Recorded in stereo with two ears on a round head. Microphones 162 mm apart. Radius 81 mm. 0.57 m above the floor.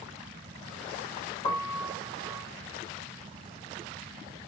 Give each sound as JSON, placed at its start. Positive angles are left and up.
{"t": 1.4, "sound": "a piano", "side_deg": 25, "distance_m": 3.0}